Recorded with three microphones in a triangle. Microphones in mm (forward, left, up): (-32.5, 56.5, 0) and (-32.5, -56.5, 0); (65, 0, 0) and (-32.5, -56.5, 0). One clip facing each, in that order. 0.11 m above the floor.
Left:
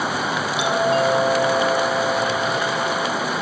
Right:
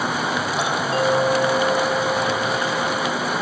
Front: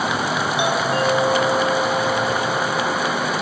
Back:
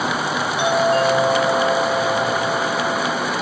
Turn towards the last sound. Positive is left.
turn(degrees=-40)